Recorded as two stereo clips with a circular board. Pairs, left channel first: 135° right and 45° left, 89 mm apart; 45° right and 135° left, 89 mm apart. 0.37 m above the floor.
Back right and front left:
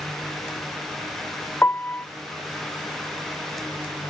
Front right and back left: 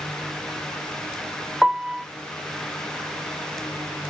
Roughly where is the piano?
Behind.